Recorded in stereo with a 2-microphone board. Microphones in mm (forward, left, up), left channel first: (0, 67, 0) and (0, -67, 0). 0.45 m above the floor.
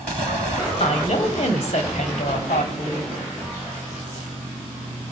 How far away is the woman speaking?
About 2.5 m.